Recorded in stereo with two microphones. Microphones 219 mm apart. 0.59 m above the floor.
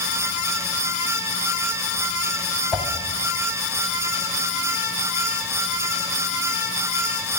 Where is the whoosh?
5° right (ahead or behind), 1.0 m.